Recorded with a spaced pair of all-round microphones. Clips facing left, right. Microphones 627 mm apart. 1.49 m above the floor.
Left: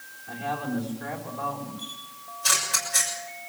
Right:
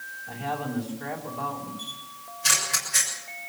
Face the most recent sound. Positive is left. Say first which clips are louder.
# left 1 dB
turn(degrees=-50)  # may be behind; listen again after turning